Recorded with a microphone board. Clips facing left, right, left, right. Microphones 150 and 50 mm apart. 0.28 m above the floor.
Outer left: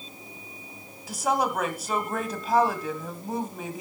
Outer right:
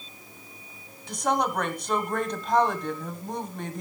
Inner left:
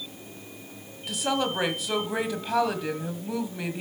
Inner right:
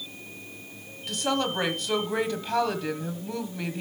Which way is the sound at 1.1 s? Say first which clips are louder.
Even, even; 5° left (ahead or behind).